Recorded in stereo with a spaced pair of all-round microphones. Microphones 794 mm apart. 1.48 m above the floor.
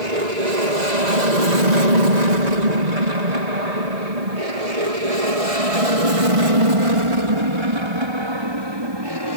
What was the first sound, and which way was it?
An aircraft, 55° right (ahead or behind).